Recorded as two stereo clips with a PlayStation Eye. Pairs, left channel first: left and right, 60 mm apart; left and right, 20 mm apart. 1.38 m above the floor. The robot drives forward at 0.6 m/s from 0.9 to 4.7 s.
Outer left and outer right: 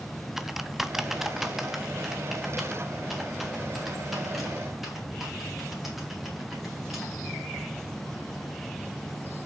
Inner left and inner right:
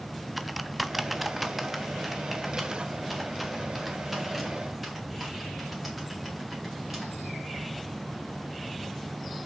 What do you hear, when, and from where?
0.4 s typing on a keyboard: 5° right (ahead or behind), 0.6 m; by 7.4 s centre (ahead or behind), 3 m